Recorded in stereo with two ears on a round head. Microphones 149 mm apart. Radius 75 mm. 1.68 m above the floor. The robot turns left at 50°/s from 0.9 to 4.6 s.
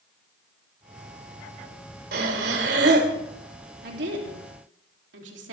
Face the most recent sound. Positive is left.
turn(degrees=-95)